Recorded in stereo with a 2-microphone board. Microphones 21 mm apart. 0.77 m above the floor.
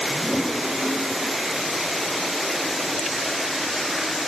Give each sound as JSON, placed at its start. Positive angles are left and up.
{"t": 0.1, "sound": "a toilet flushing", "side_deg": -30, "distance_m": 4.5}